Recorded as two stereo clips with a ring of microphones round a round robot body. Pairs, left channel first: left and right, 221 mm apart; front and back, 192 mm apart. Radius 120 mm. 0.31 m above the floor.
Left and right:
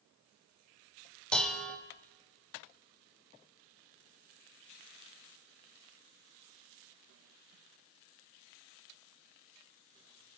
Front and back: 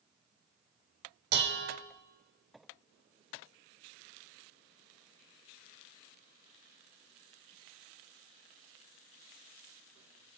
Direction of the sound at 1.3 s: 175° left.